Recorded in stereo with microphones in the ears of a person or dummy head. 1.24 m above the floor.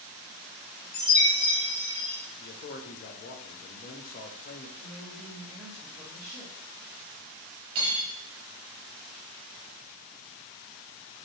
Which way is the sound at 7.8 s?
45° right (ahead or behind).